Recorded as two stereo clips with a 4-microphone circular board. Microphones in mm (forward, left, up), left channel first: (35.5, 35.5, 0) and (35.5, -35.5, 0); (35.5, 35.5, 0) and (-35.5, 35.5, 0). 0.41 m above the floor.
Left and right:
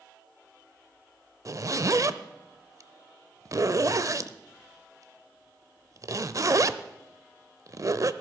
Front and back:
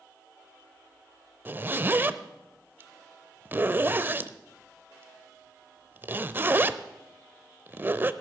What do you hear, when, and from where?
1.4 s a zipper: 125° right, 0.5 m